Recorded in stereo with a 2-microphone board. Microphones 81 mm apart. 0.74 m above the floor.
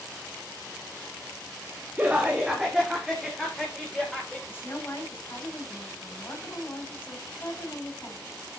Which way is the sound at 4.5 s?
25° left (ahead or behind).